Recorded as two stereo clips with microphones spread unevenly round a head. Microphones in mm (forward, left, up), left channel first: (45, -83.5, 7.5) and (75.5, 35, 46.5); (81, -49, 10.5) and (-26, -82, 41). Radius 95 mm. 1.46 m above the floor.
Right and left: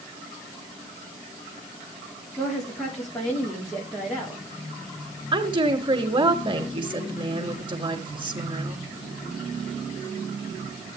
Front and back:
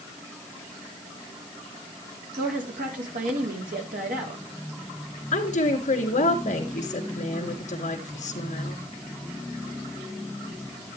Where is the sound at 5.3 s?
25° left, 3 m.